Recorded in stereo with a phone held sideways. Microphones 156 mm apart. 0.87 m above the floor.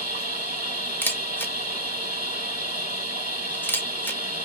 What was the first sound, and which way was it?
A machine running, 55° left (ahead or behind).